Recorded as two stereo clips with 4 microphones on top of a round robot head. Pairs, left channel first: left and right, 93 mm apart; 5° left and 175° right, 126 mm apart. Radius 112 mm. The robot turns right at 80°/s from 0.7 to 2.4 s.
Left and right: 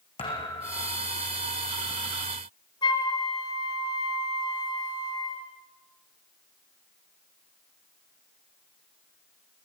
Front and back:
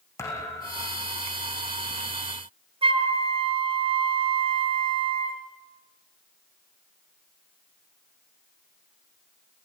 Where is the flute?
140° left, 5 m.